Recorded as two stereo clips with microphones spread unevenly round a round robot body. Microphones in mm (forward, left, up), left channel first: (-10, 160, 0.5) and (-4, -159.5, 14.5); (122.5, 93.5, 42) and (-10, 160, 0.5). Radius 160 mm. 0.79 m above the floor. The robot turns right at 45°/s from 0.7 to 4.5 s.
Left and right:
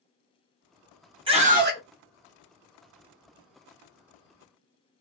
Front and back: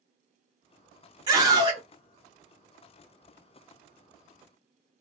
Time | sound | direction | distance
1.3 | a scream | 165° right | 1.0 m